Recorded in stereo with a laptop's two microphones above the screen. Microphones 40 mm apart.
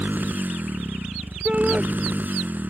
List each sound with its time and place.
0.0 s a motorcycle: 50° right (ahead or behind)
1.4 s a shout: 30° right (ahead or behind)